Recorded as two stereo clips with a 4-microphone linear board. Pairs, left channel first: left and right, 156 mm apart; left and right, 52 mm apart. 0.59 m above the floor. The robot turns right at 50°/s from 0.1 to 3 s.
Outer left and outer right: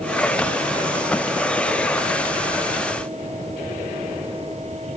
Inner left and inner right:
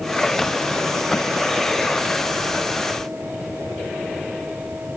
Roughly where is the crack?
I don't hear a crack.